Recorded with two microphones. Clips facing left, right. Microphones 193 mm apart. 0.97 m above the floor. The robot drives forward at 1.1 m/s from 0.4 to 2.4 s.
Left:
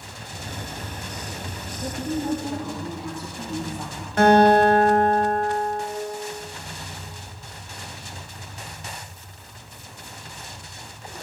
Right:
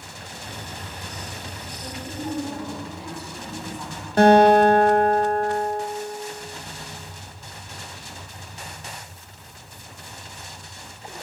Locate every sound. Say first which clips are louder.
1.8 s a woman speaking: left 6 dB; 60° left (ahead or behind), 1.8 m; by 4.1 s 45° left (ahead or behind), 2 m
4.2 s a guitar: right 2 dB; 30° right (ahead or behind), 1.1 m